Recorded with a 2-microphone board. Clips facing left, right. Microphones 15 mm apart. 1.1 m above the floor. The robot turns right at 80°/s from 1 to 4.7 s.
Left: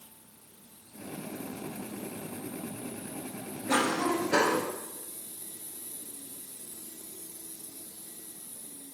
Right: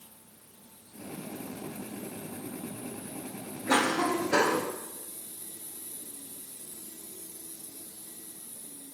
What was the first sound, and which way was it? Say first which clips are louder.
A cough: right 1 dB; 135° right.